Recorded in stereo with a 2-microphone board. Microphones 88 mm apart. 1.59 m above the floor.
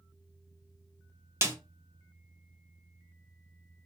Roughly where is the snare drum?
Right.